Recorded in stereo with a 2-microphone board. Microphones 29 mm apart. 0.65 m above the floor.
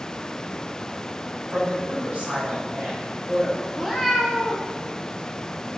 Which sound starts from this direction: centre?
A cat meowing, at 3.8 s.